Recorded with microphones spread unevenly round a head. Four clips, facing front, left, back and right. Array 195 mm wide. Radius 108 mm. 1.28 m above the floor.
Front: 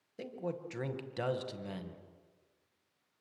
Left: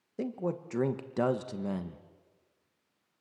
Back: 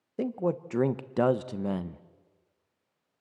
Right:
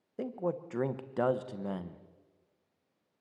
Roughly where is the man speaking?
Behind left.